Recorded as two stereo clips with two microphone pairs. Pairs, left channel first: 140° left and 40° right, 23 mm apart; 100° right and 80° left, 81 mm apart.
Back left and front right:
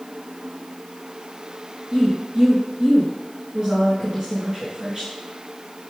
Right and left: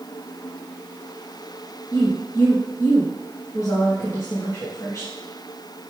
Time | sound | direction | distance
1.9 | a woman speaking | 85° right | 2 m